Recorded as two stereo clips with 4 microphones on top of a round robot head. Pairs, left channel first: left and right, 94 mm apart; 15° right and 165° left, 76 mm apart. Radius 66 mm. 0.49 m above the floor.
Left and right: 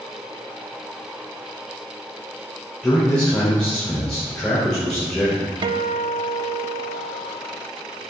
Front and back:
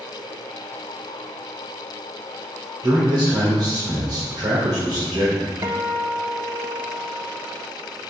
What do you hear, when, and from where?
2.8 s a man speaking: 170° left, 2.5 m
5.6 s a guitar: 125° right, 0.6 m